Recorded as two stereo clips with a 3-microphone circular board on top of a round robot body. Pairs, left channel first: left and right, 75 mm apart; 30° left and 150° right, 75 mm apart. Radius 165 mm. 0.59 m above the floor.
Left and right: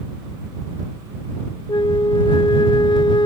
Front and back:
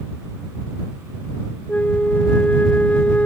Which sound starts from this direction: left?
A flute, at 1.7 s.